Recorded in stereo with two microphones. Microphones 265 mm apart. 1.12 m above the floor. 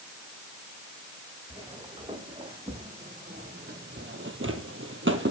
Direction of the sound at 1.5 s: 15° right (ahead or behind).